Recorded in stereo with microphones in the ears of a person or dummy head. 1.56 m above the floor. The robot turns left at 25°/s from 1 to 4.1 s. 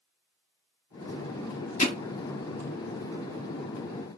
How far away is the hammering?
About 1.1 m.